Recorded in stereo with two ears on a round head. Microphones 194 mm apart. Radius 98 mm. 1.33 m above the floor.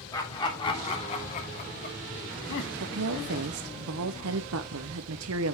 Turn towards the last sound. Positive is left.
turn(degrees=-75)  # may be behind; listen again after turning